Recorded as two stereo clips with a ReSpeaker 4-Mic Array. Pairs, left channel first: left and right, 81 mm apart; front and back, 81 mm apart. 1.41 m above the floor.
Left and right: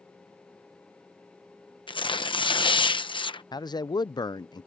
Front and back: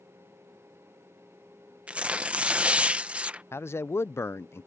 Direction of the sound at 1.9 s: 105° left.